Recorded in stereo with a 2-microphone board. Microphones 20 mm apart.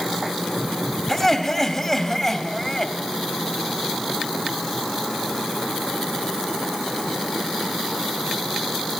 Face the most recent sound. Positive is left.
turn(degrees=5)  # may be behind; listen again after turning